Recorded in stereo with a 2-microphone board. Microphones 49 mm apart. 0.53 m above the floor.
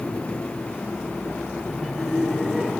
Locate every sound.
1.7 s laughter: centre (ahead or behind), 6.5 m; by 2.7 s 5° right (ahead or behind), 6.5 m